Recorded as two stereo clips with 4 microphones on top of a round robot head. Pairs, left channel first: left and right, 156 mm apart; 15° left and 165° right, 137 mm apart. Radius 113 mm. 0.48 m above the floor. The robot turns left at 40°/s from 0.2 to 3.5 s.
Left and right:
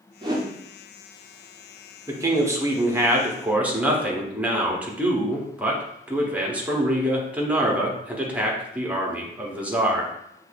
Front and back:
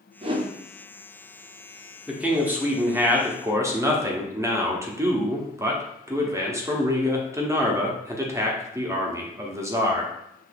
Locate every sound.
0.2 s a whoosh: 140° right, 0.8 m; by 0.5 s 155° right, 0.8 m
2.1 s a man speaking: 95° right, 0.9 m; by 10.1 s 155° right, 0.9 m